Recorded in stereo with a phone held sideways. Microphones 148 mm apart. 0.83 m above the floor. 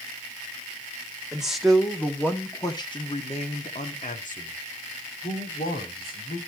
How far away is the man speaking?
About 1.6 m.